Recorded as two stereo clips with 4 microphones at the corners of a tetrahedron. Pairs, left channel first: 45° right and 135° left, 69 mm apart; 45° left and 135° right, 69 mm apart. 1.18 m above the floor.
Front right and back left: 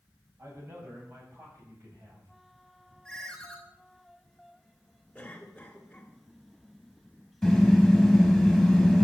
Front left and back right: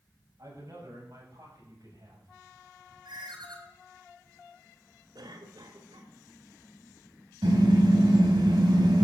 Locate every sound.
0.4 s a man speaking: 175° right, 9 m; by 2.3 s 165° right, 8 m
3.0 s a ringtone: 130° right, 4 m
5.2 s a cough: 125° right, 3 m
7.4 s a car horn: 135° right, 4.5 m